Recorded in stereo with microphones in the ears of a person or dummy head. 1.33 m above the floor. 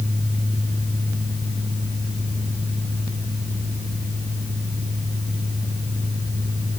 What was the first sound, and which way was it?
Only background noise.